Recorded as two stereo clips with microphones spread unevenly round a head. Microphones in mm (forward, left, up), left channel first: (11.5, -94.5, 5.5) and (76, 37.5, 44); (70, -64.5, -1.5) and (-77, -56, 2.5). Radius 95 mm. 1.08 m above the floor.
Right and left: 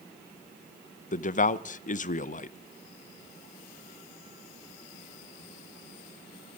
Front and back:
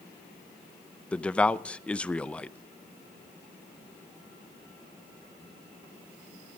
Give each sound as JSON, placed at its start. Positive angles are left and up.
{"t": 1.1, "sound": "a man speaking", "azimuth_deg": -85, "distance_m": 0.6}